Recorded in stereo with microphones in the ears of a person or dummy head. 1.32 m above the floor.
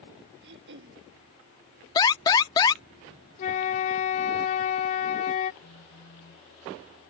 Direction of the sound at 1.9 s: 20° left (ahead or behind).